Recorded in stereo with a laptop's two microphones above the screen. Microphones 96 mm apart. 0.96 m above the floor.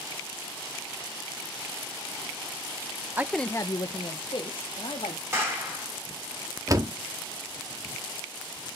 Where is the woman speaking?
20° right (ahead or behind), 0.5 m; by 5.2 s 75° left (ahead or behind), 2 m.